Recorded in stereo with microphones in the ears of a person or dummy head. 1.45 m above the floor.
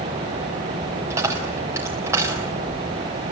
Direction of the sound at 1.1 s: 15° right (ahead or behind).